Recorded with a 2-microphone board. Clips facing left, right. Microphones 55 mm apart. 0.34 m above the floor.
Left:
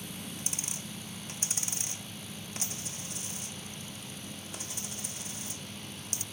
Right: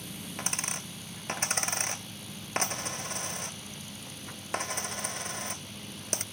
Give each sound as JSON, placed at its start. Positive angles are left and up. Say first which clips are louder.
{"t": 0.4, "sound": "a dropped coin", "louder": "right 5 dB", "side_deg": -55}